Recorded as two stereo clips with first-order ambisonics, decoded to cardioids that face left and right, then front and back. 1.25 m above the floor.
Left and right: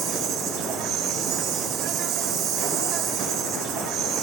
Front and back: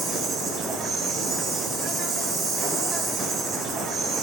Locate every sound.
0.0 s an insect: 120° right, 3.5 m